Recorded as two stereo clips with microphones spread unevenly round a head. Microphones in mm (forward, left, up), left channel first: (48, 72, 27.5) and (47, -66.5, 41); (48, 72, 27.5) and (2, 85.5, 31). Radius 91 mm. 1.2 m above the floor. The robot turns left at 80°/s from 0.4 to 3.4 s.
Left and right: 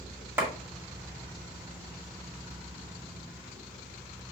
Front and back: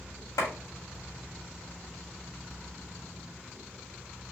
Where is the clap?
20° right, 2 m; by 0.5 s 25° right, 2 m.